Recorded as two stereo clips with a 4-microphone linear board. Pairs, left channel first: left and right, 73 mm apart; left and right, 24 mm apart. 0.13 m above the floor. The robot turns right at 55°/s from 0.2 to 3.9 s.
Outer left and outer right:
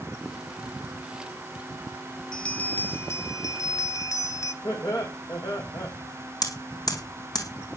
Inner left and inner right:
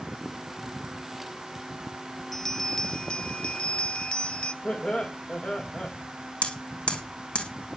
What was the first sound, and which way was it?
A bell, 15° left.